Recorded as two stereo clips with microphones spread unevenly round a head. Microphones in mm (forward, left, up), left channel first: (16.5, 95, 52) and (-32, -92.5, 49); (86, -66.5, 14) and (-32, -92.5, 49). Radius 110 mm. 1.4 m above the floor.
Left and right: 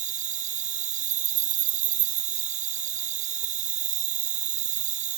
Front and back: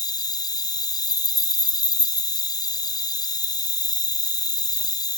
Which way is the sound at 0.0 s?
50° right.